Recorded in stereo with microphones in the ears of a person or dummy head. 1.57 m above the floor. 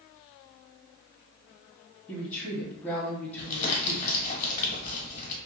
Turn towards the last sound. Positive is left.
turn(degrees=45)  # may be behind; listen again after turning